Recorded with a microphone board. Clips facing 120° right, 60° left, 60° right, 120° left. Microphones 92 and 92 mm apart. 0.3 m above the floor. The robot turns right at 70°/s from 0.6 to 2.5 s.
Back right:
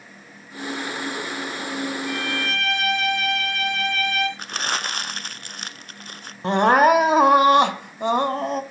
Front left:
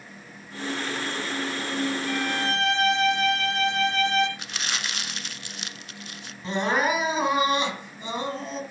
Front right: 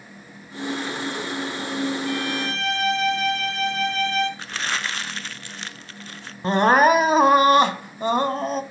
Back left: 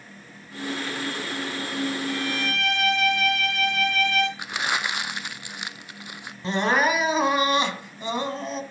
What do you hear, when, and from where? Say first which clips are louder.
2.1 s a violin: even, front right 2 dB; 35° right, 2 m; by 4.3 s straight ahead, 2 m
4.4 s crumpling: back right 6 dB, back left 1 dB; 165° right, 0.6 m
6.4 s crying: back right 9 dB, front right 6 dB; 100° right, 1.4 m